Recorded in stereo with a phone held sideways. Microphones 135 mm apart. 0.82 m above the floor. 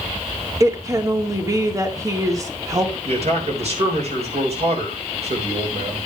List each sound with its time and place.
0.6 s a woman speaking: 25° right (ahead or behind), 1.8 m
3.0 s a man speaking: 50° right (ahead or behind), 3.5 m